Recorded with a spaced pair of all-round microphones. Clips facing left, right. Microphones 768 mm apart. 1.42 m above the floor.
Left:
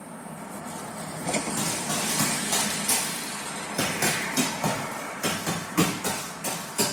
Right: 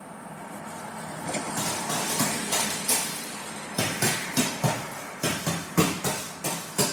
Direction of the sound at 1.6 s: 10° left (ahead or behind).